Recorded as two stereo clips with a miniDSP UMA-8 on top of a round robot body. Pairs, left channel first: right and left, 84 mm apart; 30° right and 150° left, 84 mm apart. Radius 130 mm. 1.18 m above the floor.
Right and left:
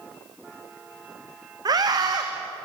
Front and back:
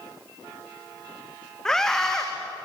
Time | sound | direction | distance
1.6 | a scream | 55° left | 1.9 m